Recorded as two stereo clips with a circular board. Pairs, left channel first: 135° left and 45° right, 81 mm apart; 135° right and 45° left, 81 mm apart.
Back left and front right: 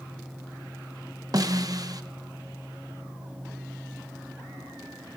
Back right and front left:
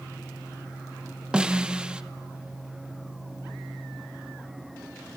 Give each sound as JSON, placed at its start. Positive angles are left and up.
{"t": 1.3, "sound": "a snare drum", "azimuth_deg": -30, "distance_m": 0.9}